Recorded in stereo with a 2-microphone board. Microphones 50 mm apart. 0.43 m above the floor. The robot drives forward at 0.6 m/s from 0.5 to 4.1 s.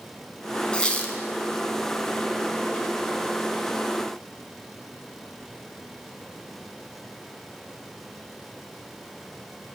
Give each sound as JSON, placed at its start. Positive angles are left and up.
{"t": 0.7, "sound": "a squeak", "side_deg": 20, "distance_m": 0.8}